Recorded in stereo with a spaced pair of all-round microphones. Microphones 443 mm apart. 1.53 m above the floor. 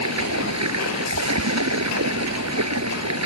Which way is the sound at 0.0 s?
35° right (ahead or behind).